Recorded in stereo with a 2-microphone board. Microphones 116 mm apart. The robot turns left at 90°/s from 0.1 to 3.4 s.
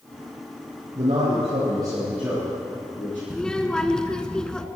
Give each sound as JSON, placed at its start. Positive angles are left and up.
{"t": 0.9, "sound": "a man speaking", "azimuth_deg": -60, "distance_m": 5.5}
{"t": 3.3, "sound": "a child speaking", "side_deg": 5, "distance_m": 0.9}